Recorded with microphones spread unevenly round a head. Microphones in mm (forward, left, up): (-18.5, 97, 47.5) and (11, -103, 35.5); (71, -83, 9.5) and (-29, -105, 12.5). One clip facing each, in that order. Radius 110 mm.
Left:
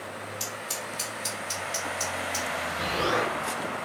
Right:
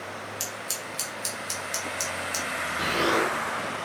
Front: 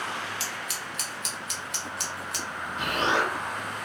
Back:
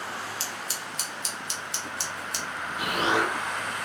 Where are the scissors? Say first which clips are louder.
Left 1 dB, even; 135° right, 1.6 m.